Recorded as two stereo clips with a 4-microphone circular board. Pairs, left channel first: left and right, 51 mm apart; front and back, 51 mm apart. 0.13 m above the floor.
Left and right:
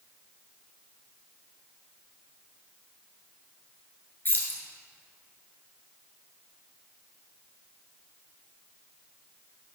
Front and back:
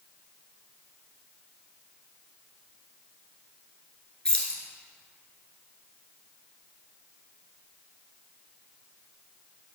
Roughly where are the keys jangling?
Ahead left.